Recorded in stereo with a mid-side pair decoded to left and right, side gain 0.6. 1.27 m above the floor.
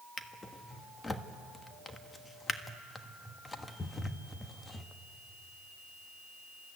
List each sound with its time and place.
0.2 s a drawer: 20° left, 1.2 m